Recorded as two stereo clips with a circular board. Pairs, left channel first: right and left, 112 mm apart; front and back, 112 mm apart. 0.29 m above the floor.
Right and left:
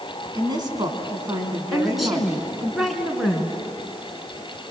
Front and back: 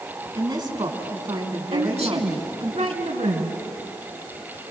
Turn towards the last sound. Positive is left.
turn(degrees=180)